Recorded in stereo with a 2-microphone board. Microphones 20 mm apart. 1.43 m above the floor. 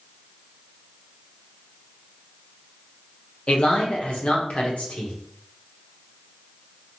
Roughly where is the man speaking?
Left.